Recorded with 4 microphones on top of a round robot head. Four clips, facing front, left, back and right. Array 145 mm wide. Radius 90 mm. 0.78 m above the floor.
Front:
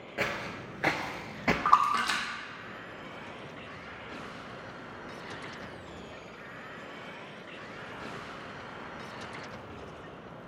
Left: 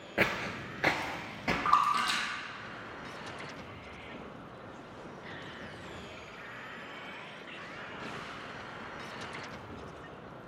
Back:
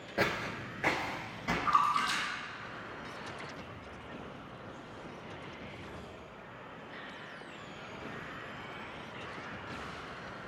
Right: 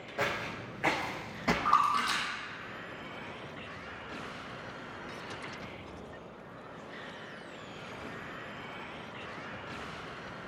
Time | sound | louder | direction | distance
0.2 | footsteps | left 2 dB, back 1 dB | 120° left | 0.9 m
1.6 | a splash | left 1 dB, front 4 dB | 5° left | 2.5 m